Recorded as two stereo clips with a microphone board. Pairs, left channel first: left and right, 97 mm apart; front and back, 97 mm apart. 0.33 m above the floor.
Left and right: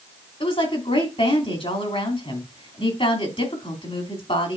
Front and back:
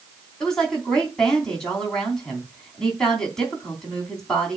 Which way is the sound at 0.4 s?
85° left.